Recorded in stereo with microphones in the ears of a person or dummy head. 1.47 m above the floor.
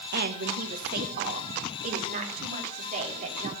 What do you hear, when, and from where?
0.1 s a woman speaking: 50° right (ahead or behind), 1.2 m; by 3.5 s 40° right (ahead or behind), 3.5 m